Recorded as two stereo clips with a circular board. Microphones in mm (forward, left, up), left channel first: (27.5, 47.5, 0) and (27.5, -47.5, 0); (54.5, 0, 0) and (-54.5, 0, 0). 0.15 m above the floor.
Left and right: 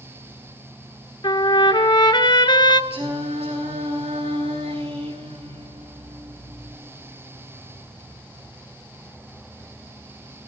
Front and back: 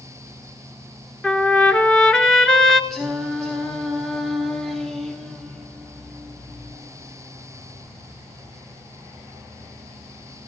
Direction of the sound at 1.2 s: 85° left.